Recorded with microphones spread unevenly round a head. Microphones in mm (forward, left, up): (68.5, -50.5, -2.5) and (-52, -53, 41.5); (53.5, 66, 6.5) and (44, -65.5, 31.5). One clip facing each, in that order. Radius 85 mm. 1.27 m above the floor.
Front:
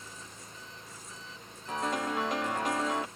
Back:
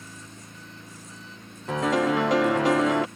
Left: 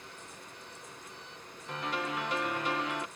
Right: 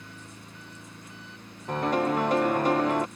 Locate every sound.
0.0 s an engine running: 150° right
1.7 s a piano: 155° right